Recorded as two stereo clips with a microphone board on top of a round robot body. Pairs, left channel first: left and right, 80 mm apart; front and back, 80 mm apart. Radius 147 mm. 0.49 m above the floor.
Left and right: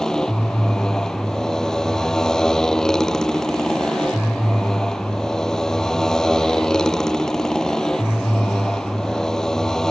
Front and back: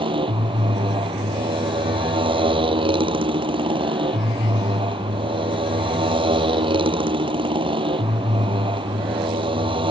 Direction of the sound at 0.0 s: 175° left.